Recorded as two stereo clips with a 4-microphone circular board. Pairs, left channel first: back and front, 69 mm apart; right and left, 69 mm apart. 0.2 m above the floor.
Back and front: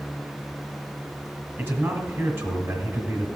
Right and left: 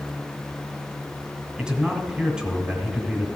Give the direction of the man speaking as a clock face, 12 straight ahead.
11 o'clock.